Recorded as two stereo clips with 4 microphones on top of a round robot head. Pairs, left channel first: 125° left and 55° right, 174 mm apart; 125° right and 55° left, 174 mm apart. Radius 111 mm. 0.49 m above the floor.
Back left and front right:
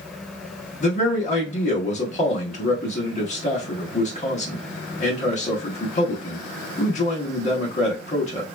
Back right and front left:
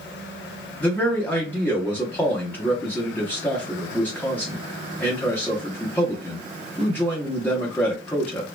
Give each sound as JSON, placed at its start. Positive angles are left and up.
{"t": 0.8, "sound": "a man speaking", "azimuth_deg": 160, "distance_m": 1.0}